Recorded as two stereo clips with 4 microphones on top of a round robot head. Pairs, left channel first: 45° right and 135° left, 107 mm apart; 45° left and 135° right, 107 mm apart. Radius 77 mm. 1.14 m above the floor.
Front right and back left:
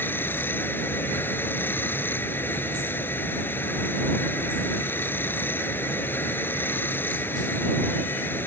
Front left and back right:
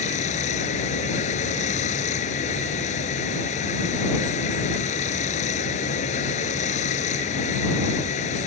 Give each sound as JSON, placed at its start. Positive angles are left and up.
{"t": 0.0, "sound": "running water", "azimuth_deg": 25}